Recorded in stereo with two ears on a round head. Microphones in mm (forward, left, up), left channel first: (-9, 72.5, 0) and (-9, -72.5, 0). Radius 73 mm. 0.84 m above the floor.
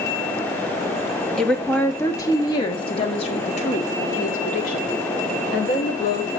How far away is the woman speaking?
About 1.5 m.